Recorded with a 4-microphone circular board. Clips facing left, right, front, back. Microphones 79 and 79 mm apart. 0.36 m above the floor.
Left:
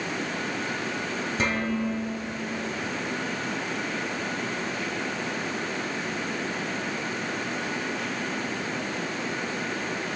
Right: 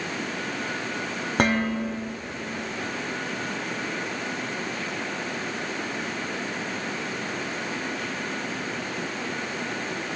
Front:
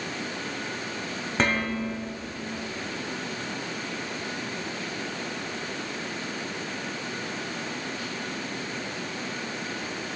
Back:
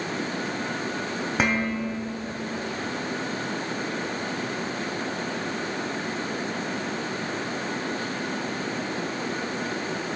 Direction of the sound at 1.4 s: 100° right.